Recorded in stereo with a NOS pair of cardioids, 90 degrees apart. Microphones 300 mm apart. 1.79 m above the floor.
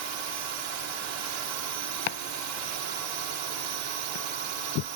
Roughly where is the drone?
Right.